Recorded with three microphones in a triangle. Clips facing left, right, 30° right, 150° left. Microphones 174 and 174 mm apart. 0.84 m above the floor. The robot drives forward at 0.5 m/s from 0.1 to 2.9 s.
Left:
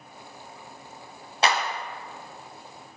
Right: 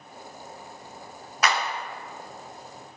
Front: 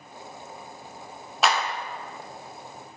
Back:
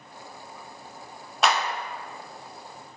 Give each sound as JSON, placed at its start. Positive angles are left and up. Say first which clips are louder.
{"t": 1.4, "sound": "a clap", "louder": "left 2 dB, even", "azimuth_deg": 55, "distance_m": 0.5}